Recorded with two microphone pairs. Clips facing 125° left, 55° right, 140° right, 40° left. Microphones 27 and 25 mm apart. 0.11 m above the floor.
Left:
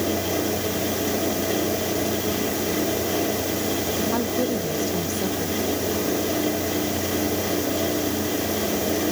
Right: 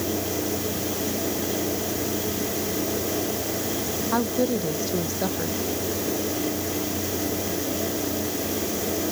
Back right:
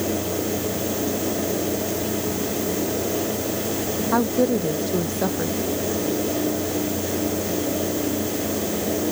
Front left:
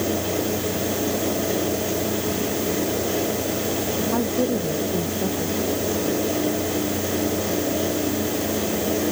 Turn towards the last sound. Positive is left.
turn(degrees=-125)